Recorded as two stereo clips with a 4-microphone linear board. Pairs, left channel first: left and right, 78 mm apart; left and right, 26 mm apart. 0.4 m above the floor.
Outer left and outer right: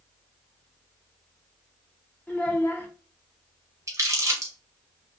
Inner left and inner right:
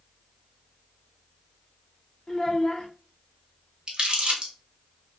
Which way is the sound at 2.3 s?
25° left (ahead or behind).